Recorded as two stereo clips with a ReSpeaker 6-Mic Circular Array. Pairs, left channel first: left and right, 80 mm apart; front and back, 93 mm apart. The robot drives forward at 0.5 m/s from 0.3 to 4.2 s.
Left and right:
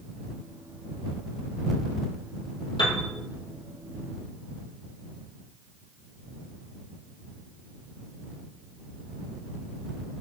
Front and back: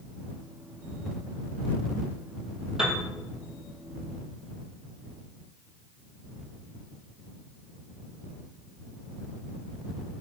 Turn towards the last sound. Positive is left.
turn(degrees=110)